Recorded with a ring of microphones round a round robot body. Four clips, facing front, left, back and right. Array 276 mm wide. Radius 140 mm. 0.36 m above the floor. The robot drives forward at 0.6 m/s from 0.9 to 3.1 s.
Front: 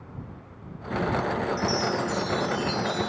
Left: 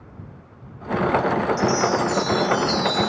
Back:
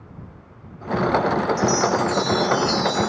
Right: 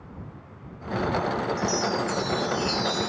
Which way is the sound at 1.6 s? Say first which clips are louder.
Left 6 dB, back 7 dB; 125° left.